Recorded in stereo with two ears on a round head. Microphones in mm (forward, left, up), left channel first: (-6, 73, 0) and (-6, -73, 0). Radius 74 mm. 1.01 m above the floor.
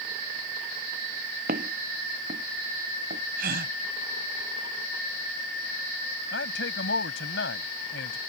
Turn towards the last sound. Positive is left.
turn(degrees=85)